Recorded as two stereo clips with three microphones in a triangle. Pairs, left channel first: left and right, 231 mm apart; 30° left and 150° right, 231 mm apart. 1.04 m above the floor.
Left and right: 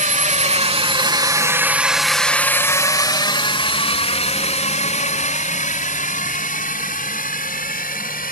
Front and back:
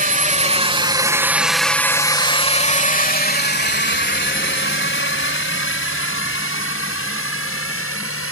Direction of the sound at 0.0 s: 125° right.